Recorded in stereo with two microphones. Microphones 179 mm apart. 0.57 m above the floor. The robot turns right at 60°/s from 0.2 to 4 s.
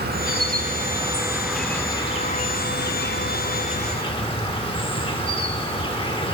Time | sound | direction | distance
0.0 | an insect | 80° right | 0.9 m